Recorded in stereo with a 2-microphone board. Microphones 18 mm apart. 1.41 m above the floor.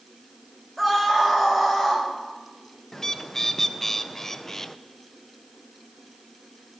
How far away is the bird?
About 0.5 m.